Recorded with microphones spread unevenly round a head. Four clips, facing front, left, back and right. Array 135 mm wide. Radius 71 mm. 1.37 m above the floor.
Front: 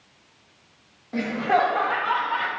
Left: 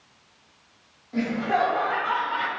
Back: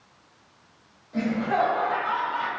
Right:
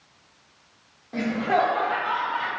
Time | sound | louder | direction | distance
1.1 | laughter | right 1 dB, front 2 dB | 25° right | 1.3 m